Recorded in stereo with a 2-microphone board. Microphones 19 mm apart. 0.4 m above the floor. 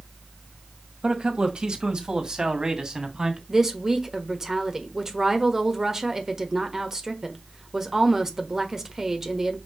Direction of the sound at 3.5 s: 30° right (ahead or behind).